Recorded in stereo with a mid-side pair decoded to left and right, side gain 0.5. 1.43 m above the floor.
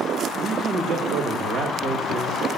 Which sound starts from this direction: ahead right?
A man speaking, at 0.4 s.